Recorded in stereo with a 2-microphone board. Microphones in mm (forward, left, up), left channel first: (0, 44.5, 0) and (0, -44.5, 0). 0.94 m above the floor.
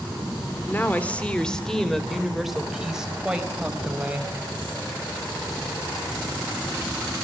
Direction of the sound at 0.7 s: 25° left (ahead or behind).